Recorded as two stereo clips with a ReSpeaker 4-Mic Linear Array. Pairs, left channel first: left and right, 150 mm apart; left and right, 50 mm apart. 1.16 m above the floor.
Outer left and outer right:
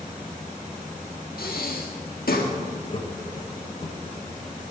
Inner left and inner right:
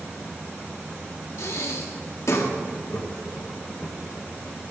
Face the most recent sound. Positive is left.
turn(degrees=35)  # may be behind; listen again after turning